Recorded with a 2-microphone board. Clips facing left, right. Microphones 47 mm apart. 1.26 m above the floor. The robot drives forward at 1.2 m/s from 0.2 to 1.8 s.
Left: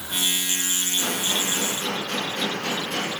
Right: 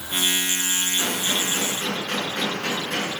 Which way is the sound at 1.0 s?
70° right (ahead or behind).